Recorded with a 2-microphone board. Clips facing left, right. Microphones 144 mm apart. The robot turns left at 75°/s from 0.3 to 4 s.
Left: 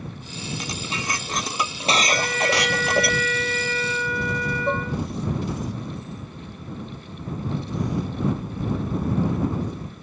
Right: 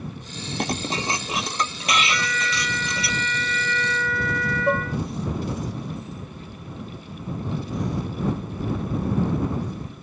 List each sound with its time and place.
0.6 s dishes clattering: 115° right; by 3.1 s 55° left
2.1 s a trumpet: 155° left; by 5.0 s 15° left
4.7 s dishes clattering: 15° right (ahead or behind)